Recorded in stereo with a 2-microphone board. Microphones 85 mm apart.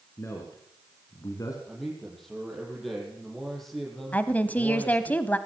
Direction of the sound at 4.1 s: 20° left (ahead or behind).